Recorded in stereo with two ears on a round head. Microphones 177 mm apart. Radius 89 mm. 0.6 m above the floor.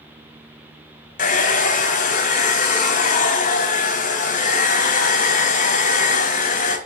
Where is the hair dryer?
40° left (ahead or behind), 2.5 m.